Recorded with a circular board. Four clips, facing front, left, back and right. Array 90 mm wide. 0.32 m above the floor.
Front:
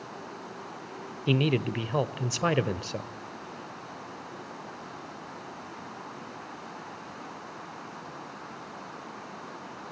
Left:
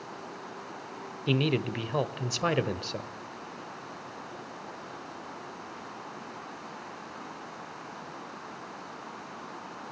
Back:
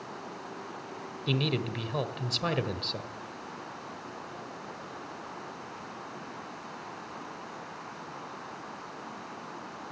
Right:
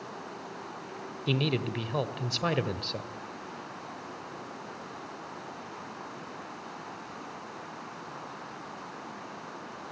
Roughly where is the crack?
I don't hear a crack.